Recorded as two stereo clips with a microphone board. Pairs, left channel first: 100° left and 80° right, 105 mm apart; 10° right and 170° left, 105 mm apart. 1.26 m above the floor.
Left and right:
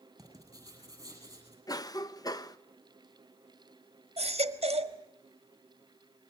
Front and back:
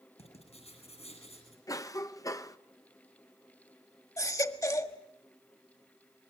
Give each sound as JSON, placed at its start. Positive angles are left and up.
{"t": 0.2, "sound": "writing", "azimuth_deg": -20, "distance_m": 7.5}
{"t": 1.7, "sound": "a cough", "azimuth_deg": 45, "distance_m": 1.0}
{"t": 4.2, "sound": "a baby crying", "azimuth_deg": -70, "distance_m": 1.5}